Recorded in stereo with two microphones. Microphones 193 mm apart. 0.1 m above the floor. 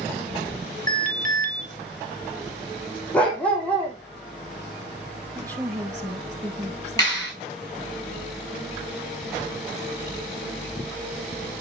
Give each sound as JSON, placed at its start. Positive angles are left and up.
{"t": 0.9, "sound": "an alarm", "side_deg": -40, "distance_m": 3.0}
{"t": 3.1, "sound": "a dog barking", "side_deg": 5, "distance_m": 2.0}
{"t": 5.3, "sound": "a woman speaking", "side_deg": -20, "distance_m": 1.2}
{"t": 7.0, "sound": "a clap", "side_deg": 20, "distance_m": 7.0}